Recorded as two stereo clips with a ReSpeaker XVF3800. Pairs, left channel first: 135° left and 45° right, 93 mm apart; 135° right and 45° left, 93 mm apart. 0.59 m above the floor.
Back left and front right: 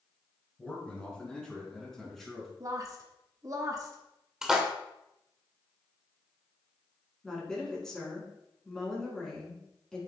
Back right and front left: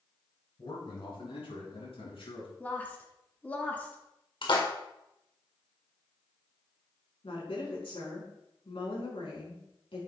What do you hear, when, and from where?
0.6 s a man speaking: 150° right, 5.5 m; by 2.5 s 135° right, 5 m
2.6 s a woman speaking: 70° right, 1.4 m
4.4 s a splash: 130° right, 1.9 m
7.2 s a woman speaking: 140° right, 5.5 m